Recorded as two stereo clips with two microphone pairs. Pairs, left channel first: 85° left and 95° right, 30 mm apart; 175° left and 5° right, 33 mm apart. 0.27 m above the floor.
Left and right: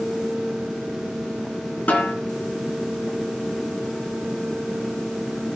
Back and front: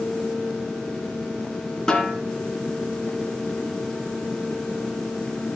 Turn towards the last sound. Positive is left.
turn(degrees=105)